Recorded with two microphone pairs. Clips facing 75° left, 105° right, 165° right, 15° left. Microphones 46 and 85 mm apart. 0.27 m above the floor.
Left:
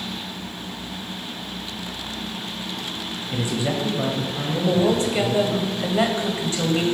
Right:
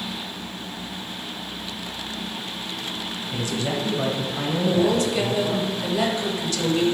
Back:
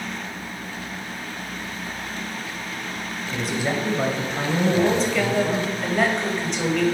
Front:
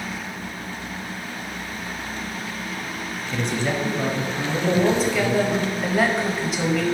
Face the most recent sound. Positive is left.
turn(degrees=90)